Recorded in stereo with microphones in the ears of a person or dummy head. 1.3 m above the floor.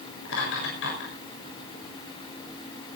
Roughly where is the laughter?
Left.